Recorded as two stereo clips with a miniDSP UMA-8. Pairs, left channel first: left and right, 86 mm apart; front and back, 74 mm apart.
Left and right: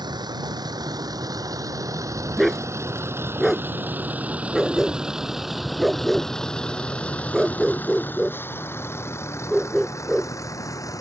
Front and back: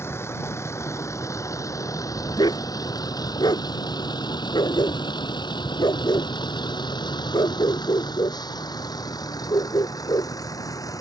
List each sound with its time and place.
0.0 s a vehicle: 55° right; by 11.0 s 40° left
2.4 s a dog barking: straight ahead